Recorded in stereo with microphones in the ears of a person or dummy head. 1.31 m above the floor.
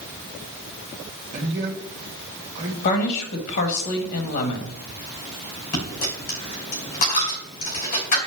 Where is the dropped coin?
45° left (ahead or behind), 3 m.